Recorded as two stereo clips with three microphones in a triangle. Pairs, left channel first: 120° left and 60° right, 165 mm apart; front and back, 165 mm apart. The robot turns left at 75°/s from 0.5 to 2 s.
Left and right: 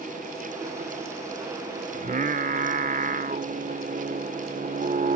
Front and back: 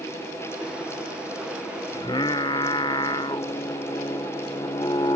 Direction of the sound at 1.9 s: 50° right.